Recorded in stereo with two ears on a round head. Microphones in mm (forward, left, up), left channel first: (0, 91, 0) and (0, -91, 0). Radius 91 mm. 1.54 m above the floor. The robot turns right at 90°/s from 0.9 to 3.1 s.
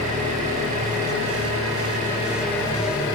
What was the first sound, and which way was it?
An engine running, 145° right.